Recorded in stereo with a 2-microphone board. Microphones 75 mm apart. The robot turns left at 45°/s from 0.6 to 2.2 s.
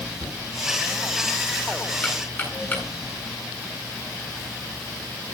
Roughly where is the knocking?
Right.